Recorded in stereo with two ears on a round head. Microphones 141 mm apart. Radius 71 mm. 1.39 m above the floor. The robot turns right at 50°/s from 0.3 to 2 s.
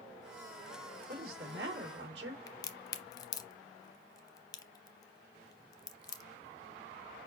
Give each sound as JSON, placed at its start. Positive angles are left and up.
{"t": 1.1, "sound": "a woman speaking", "azimuth_deg": -120, "distance_m": 2.0}
{"t": 2.5, "sound": "a crack", "side_deg": 25, "distance_m": 0.6}